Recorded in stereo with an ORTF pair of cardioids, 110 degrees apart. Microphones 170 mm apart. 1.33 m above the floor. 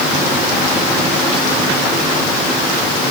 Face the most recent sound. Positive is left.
No sound to turn to.